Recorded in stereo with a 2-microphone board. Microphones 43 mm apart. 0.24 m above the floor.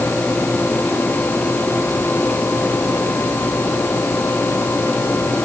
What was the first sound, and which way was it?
Only background noise.